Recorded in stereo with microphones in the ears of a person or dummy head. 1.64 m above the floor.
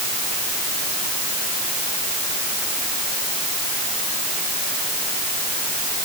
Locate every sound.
Only background noise.